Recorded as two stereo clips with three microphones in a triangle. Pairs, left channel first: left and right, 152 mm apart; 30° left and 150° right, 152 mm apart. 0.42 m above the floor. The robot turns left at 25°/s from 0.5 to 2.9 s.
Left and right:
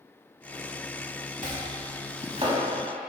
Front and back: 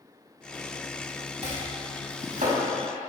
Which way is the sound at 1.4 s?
110° right.